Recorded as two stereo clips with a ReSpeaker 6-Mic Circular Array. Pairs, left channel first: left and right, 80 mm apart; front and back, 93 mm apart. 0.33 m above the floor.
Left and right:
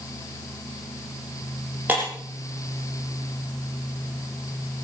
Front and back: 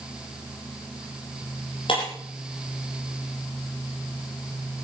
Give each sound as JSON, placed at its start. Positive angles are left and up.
{"t": 1.9, "sound": "breaking glass", "azimuth_deg": -20, "distance_m": 9.5}